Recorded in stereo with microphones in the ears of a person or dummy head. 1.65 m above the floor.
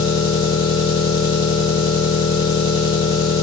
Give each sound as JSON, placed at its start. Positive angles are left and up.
{"t": 0.0, "sound": "an engine running", "side_deg": 35, "distance_m": 1.1}